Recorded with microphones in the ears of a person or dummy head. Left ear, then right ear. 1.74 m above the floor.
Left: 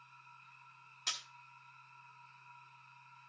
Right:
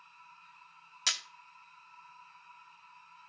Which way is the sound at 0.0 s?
5° left (ahead or behind).